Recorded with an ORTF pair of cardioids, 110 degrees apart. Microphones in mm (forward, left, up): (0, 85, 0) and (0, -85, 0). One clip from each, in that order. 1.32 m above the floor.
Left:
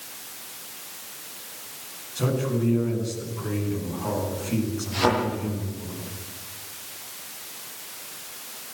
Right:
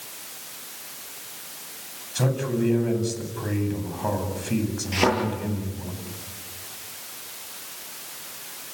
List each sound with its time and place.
2.1 s a man speaking: 55° right, 9 m
4.9 s a thud: 65° right, 10 m